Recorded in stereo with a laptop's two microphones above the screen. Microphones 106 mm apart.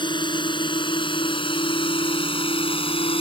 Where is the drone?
45° left (ahead or behind); by 3.2 s 60° left (ahead or behind).